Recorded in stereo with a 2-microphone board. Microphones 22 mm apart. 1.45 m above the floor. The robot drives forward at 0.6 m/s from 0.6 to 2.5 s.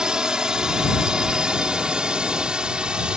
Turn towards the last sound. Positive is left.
turn(degrees=-45)  # may be behind; listen again after turning